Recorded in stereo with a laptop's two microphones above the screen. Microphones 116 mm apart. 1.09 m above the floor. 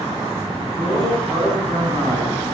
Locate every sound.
0.8 s a man speaking: 40° right (ahead or behind), 10 m; by 2.5 s 50° right (ahead or behind), 9 m